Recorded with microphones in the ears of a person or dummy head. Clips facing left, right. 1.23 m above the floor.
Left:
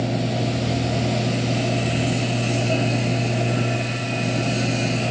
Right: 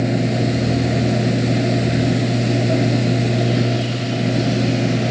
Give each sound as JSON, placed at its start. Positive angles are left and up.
{"t": 0.0, "sound": "a machine running", "side_deg": -25}